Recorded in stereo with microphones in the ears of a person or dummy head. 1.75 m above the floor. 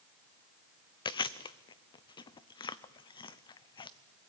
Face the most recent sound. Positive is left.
turn(degrees=30)  # may be behind; listen again after turning